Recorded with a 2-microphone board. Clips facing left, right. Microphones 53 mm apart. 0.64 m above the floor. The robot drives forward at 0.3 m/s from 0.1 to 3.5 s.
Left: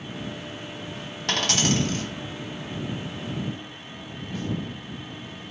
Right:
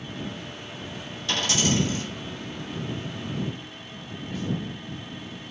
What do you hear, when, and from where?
1.3 s a dropped coin: 60° left (ahead or behind), 0.9 m; by 2.0 s 70° left (ahead or behind), 0.8 m